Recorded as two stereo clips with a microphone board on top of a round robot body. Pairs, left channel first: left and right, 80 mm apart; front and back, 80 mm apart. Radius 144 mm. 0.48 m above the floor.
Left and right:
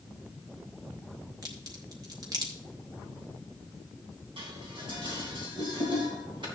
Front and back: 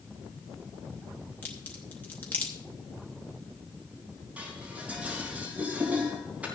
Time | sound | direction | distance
1.4 | a crack | 65° right | 2.5 m
4.4 | dishes clattering | 105° right | 3 m